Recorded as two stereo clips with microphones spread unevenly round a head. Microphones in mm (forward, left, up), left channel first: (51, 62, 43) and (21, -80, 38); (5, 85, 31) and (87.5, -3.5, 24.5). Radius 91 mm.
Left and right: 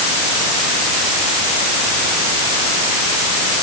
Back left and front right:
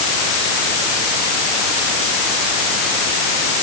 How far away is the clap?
No clap in this recording.